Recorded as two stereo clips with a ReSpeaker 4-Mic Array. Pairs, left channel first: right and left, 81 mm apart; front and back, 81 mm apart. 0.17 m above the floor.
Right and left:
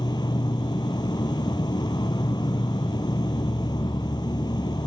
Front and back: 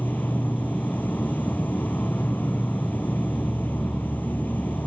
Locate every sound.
0.0 s an insect: 70° right